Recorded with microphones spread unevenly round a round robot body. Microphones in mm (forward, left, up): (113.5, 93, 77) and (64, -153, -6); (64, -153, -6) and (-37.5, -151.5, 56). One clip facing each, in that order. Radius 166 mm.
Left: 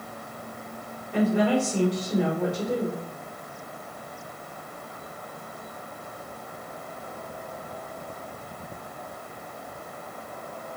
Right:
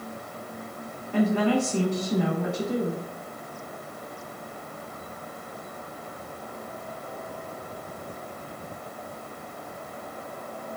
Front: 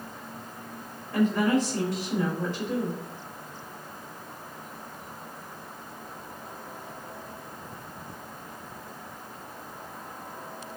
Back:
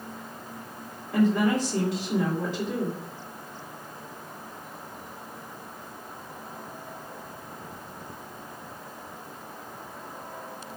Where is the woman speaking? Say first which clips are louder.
Even, back 1 dB; 170° left, 2.5 m.